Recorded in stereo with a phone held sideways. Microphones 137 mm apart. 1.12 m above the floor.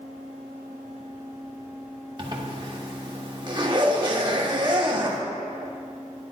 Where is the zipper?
35° right (ahead or behind), 1.1 m.